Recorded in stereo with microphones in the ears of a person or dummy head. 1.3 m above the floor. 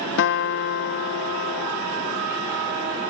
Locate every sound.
0.2 s a guitar: 60° left (ahead or behind)